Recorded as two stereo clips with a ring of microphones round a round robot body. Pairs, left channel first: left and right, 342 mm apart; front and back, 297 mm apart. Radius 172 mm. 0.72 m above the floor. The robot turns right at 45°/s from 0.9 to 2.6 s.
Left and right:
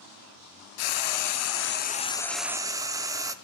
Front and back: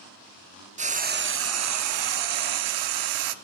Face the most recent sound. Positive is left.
turn(degrees=-170)